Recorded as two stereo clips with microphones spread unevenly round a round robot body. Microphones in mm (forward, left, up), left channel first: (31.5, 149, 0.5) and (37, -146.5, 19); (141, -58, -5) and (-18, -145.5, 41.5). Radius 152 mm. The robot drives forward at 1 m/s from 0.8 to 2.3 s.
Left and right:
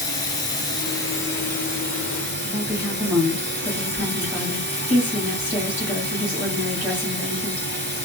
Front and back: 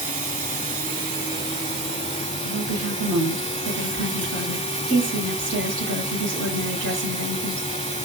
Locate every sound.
0.0 s running water: 170° left, 0.8 m; by 8.1 s 175° left, 2.5 m
2.4 s a woman speaking: 175° right, 3 m